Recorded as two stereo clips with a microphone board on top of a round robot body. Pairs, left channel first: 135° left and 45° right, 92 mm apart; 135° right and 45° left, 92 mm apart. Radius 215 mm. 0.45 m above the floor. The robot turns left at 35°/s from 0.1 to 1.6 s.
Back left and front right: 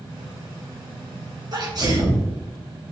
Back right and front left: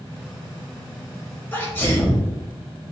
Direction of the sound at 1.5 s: 70° right.